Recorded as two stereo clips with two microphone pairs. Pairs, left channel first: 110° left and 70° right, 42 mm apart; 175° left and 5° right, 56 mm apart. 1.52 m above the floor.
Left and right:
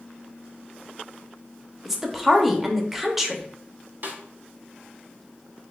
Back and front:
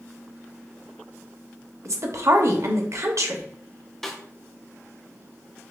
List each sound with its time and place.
1.9 s a woman speaking: 10° left, 0.7 m
4.0 s a snare drum: 105° right, 0.9 m